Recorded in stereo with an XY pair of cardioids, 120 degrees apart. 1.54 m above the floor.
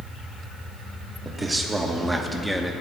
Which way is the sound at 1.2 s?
25° right.